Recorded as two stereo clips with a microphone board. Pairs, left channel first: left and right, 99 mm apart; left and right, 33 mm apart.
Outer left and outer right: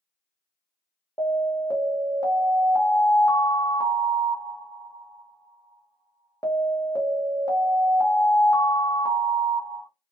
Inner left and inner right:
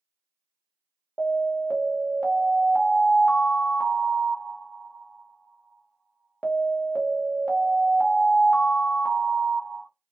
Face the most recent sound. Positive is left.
turn(degrees=40)  # may be behind; listen again after turning